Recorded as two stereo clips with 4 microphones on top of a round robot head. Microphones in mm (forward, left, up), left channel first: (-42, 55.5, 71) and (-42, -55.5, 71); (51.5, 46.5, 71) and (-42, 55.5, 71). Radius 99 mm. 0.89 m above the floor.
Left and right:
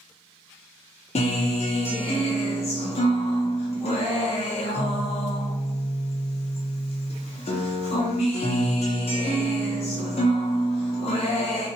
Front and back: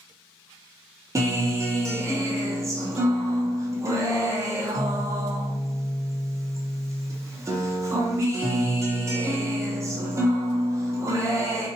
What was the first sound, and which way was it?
A guitar, 115° left.